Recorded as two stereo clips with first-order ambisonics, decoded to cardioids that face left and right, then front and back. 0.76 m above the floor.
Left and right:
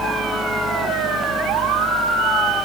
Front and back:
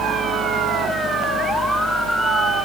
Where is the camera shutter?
No camera shutter in this recording.